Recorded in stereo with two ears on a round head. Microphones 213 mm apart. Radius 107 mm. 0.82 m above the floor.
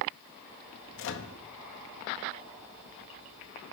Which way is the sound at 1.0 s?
55° left (ahead or behind).